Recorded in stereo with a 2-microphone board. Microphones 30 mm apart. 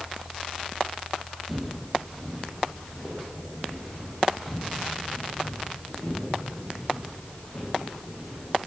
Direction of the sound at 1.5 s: 5° right (ahead or behind).